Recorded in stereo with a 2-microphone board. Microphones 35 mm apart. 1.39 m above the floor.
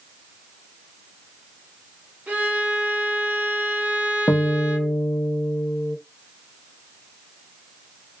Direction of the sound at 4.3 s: 60° left (ahead or behind).